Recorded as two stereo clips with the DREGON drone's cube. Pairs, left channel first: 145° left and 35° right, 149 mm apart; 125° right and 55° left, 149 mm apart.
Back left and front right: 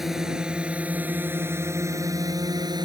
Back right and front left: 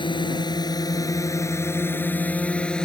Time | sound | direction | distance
0.0 | a drone | 120° right | ?